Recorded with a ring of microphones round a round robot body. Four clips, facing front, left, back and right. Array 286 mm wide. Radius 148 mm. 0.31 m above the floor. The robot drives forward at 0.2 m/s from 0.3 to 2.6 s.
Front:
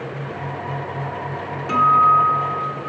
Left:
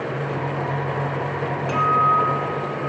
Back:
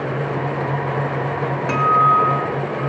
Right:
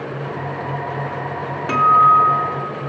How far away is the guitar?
About 1.7 m.